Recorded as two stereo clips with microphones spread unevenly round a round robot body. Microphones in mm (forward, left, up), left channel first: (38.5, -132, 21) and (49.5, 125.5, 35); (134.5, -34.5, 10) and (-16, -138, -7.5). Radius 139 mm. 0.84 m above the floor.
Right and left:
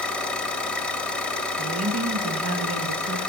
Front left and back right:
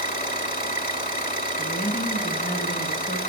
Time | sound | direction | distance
0.0 | an engine running | 5° right | 2 m
1.6 | a woman speaking | 85° left | 1.1 m